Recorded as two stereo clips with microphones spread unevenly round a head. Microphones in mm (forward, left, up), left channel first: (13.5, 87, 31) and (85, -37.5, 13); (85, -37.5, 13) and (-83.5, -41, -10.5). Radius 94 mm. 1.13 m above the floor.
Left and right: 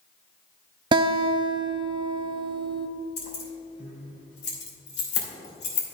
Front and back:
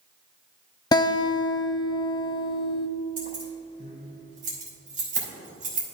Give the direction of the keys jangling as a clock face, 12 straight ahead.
8 o'clock.